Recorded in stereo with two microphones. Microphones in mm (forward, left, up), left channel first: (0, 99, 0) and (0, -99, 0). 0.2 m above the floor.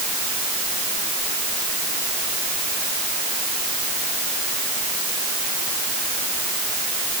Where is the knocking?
I don't hear knocking.